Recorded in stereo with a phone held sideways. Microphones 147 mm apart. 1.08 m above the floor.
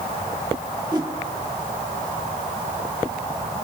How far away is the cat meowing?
No cat meowing in this recording.